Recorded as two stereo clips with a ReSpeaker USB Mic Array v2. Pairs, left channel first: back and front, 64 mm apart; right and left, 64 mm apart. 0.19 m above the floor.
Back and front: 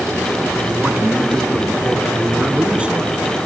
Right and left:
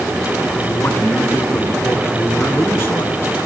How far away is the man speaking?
About 2.0 m.